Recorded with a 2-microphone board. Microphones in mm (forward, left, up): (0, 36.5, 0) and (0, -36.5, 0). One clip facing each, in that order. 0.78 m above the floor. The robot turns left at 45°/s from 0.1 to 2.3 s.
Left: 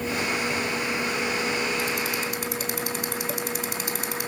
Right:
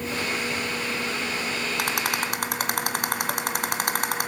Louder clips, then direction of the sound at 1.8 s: Right 1 dB; 80° right.